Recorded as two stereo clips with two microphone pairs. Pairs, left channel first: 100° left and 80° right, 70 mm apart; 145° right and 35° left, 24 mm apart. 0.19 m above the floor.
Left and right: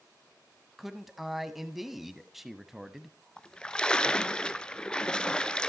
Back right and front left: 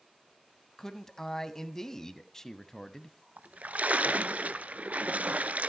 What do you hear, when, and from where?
0.8 s a man speaking: 170° right, 1.2 m
3.4 s a splash: 25° left, 0.7 m